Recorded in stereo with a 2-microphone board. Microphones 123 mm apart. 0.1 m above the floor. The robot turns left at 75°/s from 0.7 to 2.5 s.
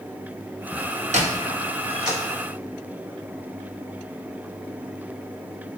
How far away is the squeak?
About 1.5 m.